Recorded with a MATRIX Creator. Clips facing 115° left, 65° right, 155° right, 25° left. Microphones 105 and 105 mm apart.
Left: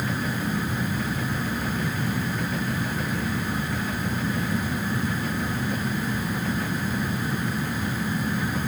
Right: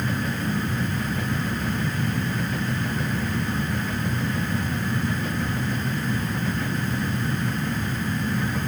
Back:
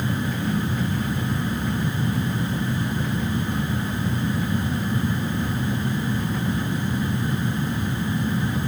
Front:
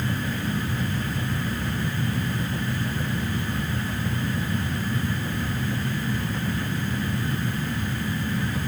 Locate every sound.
Only background noise.